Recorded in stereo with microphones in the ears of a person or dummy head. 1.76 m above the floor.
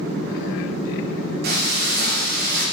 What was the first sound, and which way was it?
Frying, 60° right (ahead or behind).